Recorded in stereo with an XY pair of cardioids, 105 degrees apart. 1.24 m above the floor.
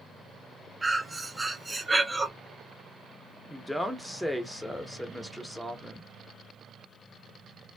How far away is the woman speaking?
About 0.8 m.